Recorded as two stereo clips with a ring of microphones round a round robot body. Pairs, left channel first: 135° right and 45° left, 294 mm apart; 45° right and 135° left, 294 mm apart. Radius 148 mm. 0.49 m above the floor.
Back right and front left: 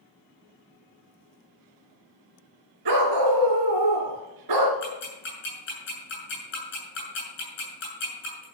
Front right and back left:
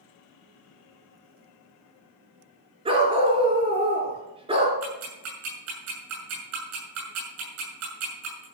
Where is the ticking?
175° left, 7.5 m.